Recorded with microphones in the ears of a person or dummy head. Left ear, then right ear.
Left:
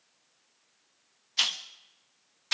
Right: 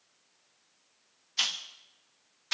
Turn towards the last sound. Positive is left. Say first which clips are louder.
# left 2 dB
turn(degrees=15)  # may be behind; listen again after turning